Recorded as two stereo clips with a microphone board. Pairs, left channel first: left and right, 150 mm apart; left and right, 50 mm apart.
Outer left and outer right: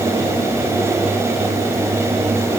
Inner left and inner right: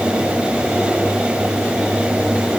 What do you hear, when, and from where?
Only background noise.